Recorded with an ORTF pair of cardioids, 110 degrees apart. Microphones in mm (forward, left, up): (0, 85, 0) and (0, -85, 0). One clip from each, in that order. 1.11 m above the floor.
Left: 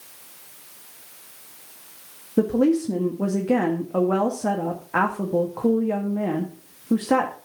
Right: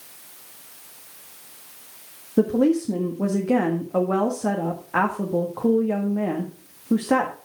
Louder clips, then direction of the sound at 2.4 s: Even; 5° left.